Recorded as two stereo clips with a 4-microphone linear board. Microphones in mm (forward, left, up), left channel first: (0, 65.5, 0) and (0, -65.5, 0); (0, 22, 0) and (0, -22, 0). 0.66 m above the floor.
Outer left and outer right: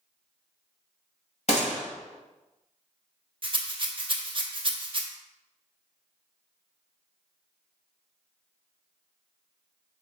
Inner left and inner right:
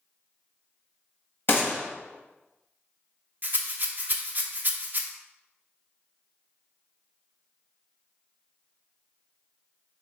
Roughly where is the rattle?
Right.